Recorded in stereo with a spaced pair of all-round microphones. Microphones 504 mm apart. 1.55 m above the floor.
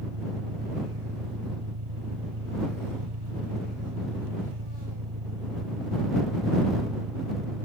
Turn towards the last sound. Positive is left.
turn(degrees=-80)